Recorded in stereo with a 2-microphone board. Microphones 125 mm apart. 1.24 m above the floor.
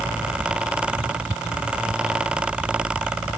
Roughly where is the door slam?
I don't hear a door slam.